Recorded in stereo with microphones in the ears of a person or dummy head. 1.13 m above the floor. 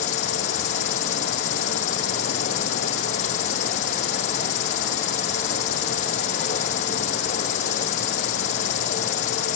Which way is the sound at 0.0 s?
40° left (ahead or behind).